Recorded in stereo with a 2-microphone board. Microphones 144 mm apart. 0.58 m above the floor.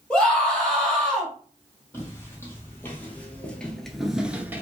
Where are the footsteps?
15° left (ahead or behind), 1.5 m; by 4.6 s 15° right (ahead or behind), 0.5 m.